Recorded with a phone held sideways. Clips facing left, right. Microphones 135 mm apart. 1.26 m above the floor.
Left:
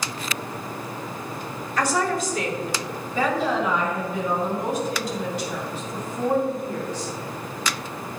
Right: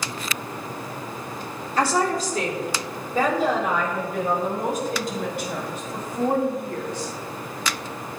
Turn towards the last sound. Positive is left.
turn(degrees=-65)  # may be behind; listen again after turning